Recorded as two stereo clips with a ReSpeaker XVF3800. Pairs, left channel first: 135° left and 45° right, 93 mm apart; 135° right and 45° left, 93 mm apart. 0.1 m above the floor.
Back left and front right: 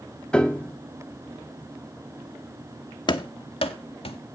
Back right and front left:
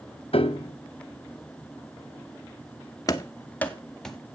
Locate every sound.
0.3 s a piano: 145° right, 0.8 m
3.1 s running footsteps: 170° left, 1.0 m; by 4.2 s 135° left, 1.6 m